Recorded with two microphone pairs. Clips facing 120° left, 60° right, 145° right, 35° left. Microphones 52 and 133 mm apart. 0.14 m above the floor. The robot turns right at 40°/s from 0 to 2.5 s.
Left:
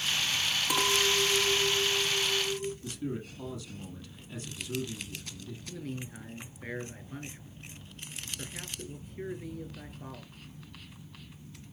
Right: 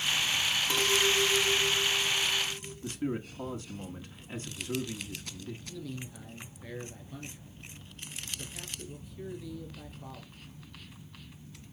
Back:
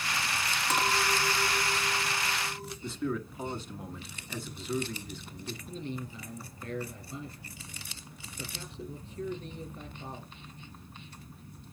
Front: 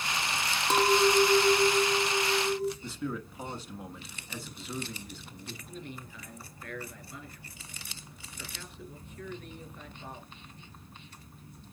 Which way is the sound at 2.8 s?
60° right.